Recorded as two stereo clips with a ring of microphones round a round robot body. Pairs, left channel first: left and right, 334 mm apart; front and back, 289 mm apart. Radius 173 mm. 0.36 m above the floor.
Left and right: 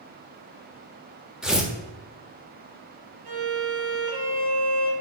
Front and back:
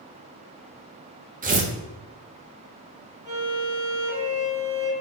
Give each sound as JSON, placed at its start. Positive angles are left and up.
{"t": 1.4, "sound": "tearing paper", "azimuth_deg": -175, "distance_m": 1.1}
{"t": 3.2, "sound": "a violin", "azimuth_deg": -100, "distance_m": 1.7}